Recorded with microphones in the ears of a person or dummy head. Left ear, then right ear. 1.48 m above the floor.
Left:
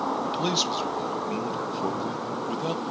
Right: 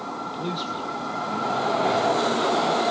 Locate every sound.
0.2 s a man speaking: 50° left (ahead or behind), 2 m